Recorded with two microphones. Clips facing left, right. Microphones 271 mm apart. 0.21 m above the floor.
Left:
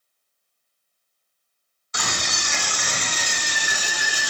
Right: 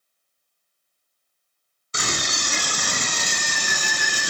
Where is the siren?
I don't hear a siren.